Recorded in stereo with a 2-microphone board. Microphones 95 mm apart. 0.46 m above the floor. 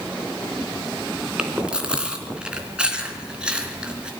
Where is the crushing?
I don't hear crushing.